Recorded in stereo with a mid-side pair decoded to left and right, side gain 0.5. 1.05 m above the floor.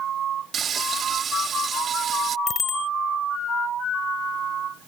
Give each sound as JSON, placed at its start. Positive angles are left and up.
{"t": 0.5, "sound": "frying", "azimuth_deg": -50}
{"t": 2.5, "sound": "a bicycle bell", "azimuth_deg": 40}